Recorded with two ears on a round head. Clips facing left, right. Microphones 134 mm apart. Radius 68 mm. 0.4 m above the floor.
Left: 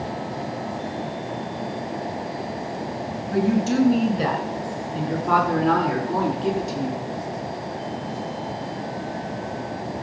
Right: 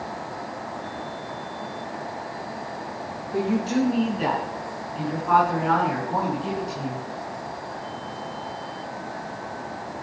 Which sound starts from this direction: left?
A woman speaking, at 3.3 s.